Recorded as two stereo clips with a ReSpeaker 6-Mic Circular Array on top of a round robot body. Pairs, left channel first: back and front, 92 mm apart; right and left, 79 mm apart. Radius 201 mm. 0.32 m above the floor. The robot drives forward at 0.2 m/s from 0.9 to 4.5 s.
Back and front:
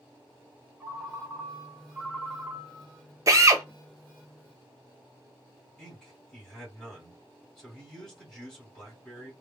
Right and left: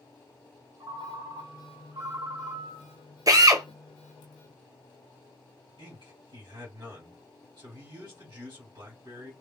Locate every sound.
0.8 s a ringtone: 65° left, 2 m; by 3.0 s 80° left, 2.0 m
3.3 s a drill: 50° left, 0.8 m; by 3.6 s 55° left, 0.8 m
5.8 s a man speaking: 95° left, 2 m